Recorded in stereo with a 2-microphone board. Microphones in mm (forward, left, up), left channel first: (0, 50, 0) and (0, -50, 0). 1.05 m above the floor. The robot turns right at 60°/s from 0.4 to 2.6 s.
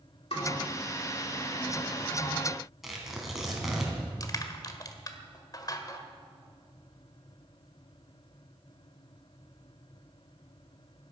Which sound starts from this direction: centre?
Tearing paper, at 2.8 s.